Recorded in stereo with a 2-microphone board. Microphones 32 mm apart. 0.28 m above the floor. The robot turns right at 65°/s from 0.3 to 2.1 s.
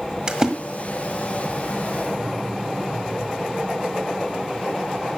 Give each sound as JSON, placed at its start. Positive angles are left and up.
{"t": 0.3, "sound": "a splash", "side_deg": -25, "distance_m": 1.6}